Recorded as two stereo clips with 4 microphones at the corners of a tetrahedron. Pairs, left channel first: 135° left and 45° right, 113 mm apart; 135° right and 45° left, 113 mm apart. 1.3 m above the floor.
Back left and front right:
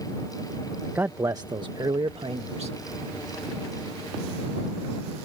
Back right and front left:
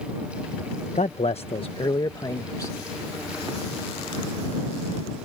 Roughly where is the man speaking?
Behind right.